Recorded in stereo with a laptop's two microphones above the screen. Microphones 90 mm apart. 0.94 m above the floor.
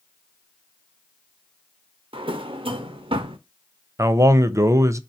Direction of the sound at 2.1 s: 85° right.